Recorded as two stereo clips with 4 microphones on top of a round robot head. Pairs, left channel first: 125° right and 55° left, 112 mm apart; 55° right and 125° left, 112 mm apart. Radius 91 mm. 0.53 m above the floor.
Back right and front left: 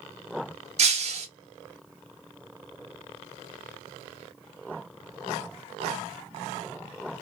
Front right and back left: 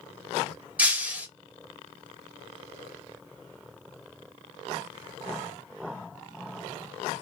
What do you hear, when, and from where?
0.8 s breaking glass: 50° left, 0.8 m